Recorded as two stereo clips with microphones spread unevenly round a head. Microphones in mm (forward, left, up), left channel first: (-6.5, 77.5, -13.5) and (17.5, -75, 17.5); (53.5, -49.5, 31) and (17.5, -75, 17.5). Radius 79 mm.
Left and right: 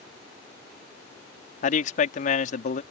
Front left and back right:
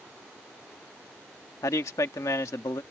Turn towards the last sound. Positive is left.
turn(degrees=55)